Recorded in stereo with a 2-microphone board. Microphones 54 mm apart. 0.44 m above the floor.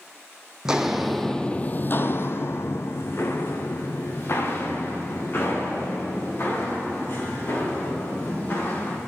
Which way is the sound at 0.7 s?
15° right (ahead or behind).